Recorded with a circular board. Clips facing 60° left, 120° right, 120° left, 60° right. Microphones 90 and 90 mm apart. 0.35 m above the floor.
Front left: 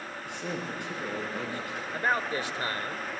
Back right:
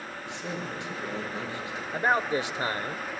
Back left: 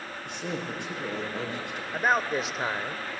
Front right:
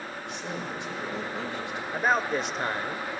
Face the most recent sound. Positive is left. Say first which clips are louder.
# back right 4 dB, even
turn(degrees=-155)